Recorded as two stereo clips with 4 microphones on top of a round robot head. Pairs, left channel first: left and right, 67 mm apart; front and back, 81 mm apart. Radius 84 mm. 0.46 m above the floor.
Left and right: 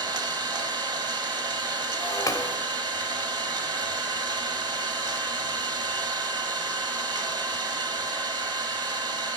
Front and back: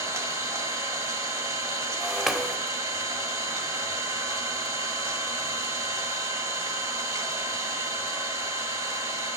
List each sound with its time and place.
0.0 s an engine running: 120° right, 0.9 m
2.0 s breaking glass: 95° left, 0.8 m